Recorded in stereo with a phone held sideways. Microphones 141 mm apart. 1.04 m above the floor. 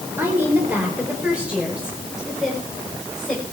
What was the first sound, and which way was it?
A woman speaking, 15° right (ahead or behind).